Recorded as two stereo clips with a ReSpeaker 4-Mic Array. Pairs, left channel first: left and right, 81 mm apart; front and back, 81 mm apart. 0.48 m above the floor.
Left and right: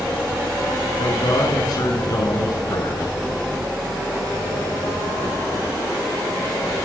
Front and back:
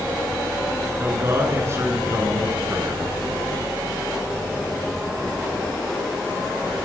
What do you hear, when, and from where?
1.0 s a man speaking: 120° left, 7.5 m